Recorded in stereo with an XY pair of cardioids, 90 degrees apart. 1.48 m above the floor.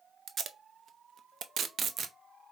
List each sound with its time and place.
0.3 s tape being pulled: 60° right, 0.5 m